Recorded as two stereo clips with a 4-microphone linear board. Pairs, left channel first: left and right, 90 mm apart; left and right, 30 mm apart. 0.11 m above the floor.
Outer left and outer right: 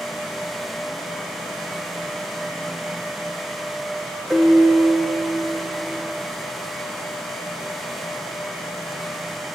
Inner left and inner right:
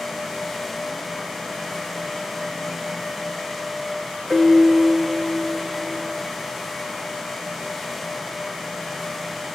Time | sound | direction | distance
4.3 | a piano | 5° right (ahead or behind) | 3.5 m